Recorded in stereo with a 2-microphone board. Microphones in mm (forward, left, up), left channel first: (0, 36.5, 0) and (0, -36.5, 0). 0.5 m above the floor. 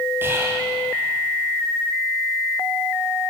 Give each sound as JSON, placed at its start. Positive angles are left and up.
{"t": 0.2, "sound": "whispering", "side_deg": -30, "distance_m": 2.5}